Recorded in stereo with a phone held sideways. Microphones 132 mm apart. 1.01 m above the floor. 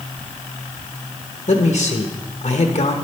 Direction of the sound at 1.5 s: 65° left (ahead or behind).